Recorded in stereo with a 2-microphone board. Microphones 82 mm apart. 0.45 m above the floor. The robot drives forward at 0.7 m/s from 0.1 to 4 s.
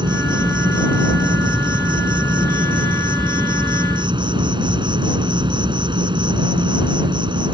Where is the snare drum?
No snare drum in this recording.